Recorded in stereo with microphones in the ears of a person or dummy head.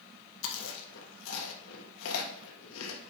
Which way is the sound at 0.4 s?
75° left (ahead or behind).